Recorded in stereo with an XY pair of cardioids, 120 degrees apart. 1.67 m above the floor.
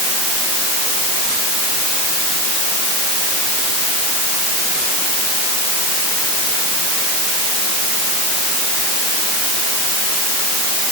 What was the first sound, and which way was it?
Only background noise.